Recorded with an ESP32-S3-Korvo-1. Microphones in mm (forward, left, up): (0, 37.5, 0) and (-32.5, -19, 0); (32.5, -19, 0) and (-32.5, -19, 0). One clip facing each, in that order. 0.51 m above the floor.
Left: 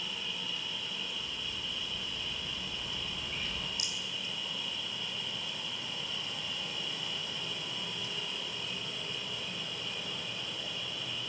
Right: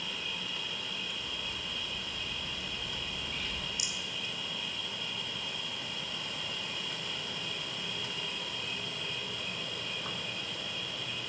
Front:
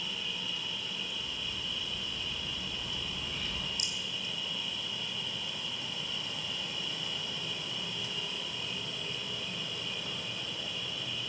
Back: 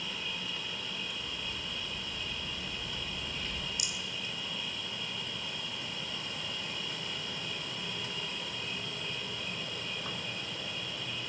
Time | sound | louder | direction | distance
0.0 | an insect | right 1 dB, even | 145° right | 0.7 m
1.2 | a bird | right 1 dB, even | 15° right | 3 m
3.8 | a rattle | even, even | 50° right | 1.3 m